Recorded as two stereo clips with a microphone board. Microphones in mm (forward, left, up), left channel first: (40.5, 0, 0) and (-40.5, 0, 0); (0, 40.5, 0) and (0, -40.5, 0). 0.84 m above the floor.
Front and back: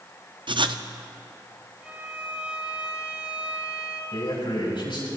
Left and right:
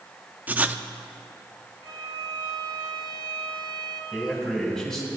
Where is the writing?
160° right, 0.5 m.